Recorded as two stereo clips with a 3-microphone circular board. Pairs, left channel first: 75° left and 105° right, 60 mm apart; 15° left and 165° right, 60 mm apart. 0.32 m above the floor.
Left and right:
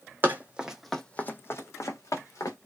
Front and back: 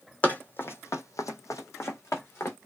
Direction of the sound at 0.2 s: 50° right.